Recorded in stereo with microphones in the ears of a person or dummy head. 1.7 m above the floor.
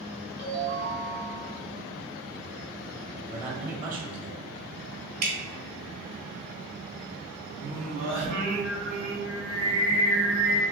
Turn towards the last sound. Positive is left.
turn(degrees=55)  # may be behind; listen again after turning